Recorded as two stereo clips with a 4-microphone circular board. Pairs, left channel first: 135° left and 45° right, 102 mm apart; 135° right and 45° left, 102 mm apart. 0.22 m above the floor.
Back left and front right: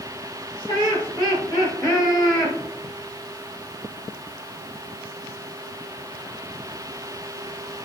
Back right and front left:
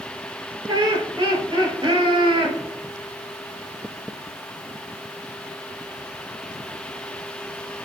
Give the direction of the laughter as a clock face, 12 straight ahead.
9 o'clock.